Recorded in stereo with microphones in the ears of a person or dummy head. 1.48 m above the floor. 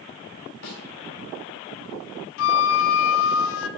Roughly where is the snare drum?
Left.